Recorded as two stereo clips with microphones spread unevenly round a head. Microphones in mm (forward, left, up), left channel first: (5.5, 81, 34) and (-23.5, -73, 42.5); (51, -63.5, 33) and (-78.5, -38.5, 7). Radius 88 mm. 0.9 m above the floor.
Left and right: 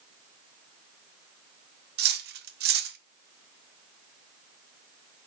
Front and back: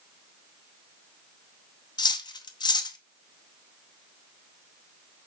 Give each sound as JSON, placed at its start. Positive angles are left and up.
{"t": 2.0, "sound": "cutlery clinking", "azimuth_deg": -70, "distance_m": 0.7}